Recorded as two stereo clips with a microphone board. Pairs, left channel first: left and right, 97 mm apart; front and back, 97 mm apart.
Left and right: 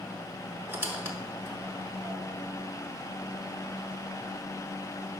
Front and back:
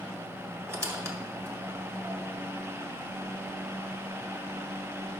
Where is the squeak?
145° right, 0.8 m.